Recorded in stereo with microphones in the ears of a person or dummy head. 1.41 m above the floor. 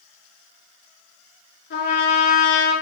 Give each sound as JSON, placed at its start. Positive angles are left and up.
{"t": 1.7, "sound": "a trumpet", "side_deg": 70, "distance_m": 7.0}